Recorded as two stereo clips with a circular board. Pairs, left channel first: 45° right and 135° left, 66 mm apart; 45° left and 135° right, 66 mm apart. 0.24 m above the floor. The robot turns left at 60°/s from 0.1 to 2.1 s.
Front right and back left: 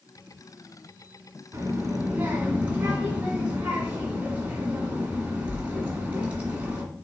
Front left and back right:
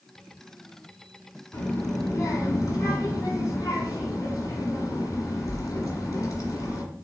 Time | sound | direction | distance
1.5 | a child speaking | 105° left | 1.7 m